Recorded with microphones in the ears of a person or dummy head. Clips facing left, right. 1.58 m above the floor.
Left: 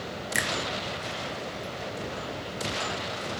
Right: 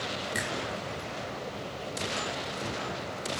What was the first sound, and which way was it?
A finger snap, 30° left (ahead or behind).